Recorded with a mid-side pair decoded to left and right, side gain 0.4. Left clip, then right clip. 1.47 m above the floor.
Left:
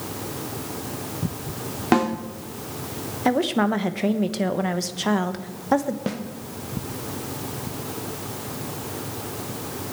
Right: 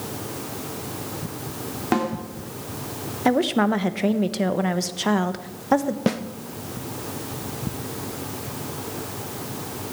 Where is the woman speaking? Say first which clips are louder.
Right 1 dB; 10° right, 1.2 m.